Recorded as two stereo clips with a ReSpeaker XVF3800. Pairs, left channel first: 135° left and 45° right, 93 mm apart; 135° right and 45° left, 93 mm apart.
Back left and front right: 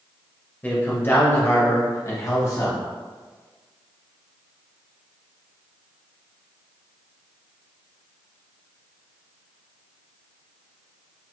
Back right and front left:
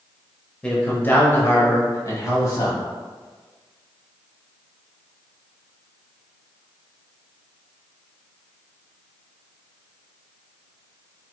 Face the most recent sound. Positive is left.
turn(degrees=180)